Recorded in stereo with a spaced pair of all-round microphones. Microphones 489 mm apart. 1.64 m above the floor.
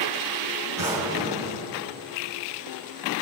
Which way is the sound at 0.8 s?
35° right (ahead or behind).